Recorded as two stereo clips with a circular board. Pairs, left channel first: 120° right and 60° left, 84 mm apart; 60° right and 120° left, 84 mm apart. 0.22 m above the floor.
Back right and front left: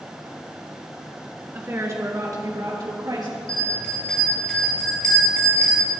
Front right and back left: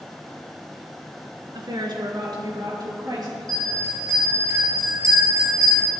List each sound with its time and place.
1.5 s a woman speaking: 120° left, 2 m; by 3.4 s 85° left, 4 m
3.5 s a bell: 165° left, 5.5 m